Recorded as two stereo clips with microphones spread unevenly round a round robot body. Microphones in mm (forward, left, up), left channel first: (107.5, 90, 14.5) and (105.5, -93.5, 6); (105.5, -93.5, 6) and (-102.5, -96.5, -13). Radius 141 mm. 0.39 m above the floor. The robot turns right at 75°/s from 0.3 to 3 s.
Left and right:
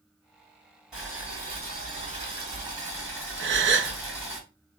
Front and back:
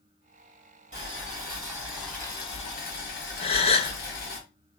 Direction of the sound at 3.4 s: 65° right.